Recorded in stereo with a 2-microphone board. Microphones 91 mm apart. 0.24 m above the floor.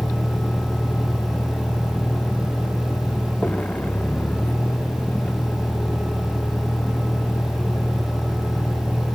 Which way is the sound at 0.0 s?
15° left (ahead or behind).